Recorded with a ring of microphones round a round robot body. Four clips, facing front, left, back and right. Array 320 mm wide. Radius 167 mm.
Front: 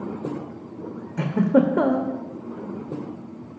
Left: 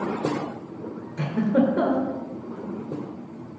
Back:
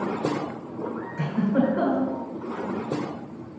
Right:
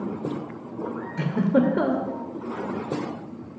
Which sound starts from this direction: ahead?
A giggle, at 1.2 s.